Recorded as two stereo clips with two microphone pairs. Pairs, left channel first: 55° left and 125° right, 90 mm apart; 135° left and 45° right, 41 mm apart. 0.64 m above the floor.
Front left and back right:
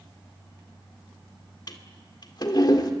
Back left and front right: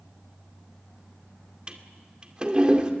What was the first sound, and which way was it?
A toilet flushing, 25° left.